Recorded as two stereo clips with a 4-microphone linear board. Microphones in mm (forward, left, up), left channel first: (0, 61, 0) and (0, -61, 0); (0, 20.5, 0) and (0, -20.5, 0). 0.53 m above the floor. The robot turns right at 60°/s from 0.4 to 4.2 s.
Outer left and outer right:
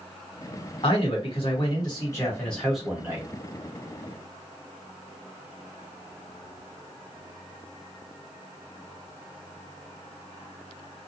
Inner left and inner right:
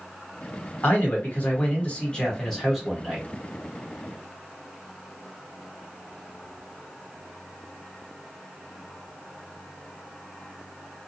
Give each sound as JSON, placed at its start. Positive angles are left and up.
{"t": 0.8, "sound": "a man speaking", "azimuth_deg": 70, "distance_m": 1.5}